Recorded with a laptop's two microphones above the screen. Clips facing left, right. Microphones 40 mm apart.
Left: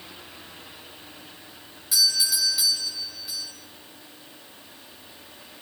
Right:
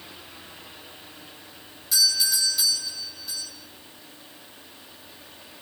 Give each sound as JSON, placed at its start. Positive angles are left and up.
{"t": 1.9, "sound": "a doorbell", "side_deg": 5, "distance_m": 5.5}